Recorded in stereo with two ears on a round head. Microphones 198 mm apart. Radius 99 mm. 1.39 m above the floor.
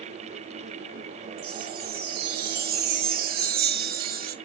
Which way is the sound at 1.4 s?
45° right (ahead or behind).